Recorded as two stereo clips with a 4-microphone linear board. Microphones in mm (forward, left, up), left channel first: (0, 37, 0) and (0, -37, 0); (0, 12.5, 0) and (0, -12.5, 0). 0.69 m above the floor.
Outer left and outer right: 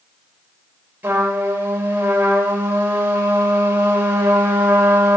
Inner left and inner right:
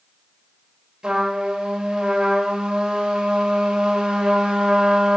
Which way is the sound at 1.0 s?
30° right (ahead or behind).